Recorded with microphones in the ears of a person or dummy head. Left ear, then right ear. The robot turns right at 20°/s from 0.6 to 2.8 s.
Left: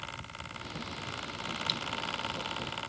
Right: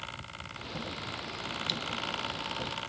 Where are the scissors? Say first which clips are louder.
Even; 5° right (ahead or behind); by 1.8 s centre (ahead or behind).